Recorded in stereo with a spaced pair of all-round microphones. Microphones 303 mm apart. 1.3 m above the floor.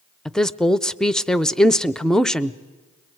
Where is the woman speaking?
Centre (ahead or behind), 0.5 m.